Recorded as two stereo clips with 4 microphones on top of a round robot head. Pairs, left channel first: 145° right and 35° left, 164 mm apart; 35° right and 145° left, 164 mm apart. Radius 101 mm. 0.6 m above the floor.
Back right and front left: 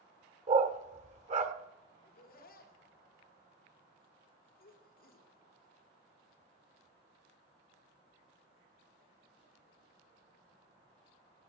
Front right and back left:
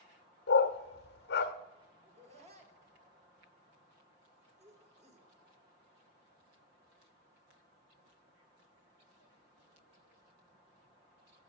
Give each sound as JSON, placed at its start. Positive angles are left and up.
{"t": 0.5, "sound": "a dog barking", "azimuth_deg": -10, "distance_m": 0.9}
{"t": 2.0, "sound": "laughter", "azimuth_deg": -170, "distance_m": 2.0}